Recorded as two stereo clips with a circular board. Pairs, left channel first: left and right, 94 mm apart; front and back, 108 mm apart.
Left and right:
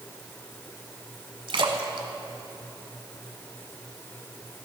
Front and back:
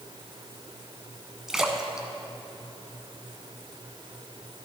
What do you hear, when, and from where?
1.5 s a splash: 95° right, 1.0 m